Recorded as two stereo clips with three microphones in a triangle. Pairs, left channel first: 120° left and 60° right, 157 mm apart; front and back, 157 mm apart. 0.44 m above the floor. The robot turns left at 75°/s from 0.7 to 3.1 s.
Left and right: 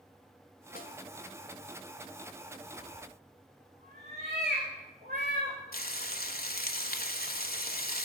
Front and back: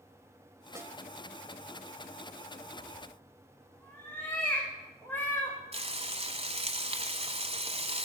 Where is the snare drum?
115° left, 1.5 m; by 0.9 s 100° left, 1.5 m.